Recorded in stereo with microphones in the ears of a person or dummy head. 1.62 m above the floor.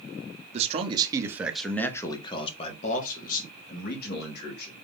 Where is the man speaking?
35° right (ahead or behind), 0.9 m; by 4.9 s 65° left (ahead or behind), 1.9 m.